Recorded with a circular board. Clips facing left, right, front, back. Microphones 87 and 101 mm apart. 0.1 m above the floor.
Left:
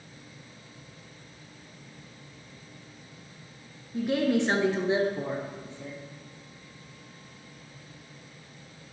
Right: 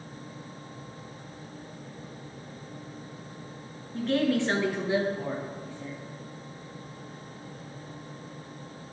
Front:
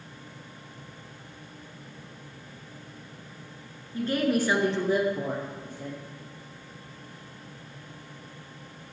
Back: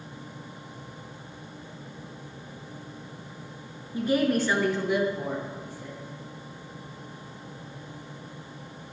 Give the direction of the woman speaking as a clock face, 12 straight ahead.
7 o'clock.